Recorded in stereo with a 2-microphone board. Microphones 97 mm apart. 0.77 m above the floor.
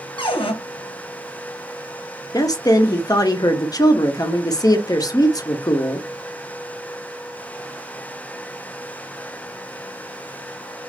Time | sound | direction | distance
0.2 | a cupboard door | 65° left (ahead or behind) | 0.9 m
2.3 | a woman speaking | 45° left (ahead or behind) | 0.6 m